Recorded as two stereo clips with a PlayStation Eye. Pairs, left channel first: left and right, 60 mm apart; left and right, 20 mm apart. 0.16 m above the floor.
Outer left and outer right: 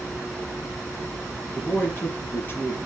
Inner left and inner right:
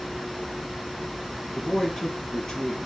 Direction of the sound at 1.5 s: 35° left (ahead or behind).